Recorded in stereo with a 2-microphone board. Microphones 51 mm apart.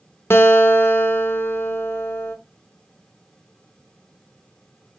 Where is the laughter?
I don't hear laughter.